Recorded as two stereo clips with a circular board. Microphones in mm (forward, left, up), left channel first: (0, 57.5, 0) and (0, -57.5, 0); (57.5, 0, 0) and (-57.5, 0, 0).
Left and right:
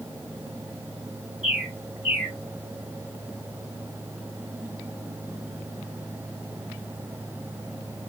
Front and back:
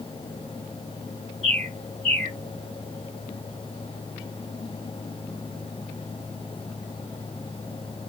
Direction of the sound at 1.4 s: 160° right.